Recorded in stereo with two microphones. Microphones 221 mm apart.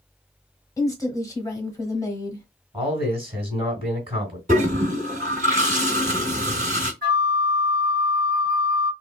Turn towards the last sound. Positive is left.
turn(degrees=-50)  # may be behind; listen again after turning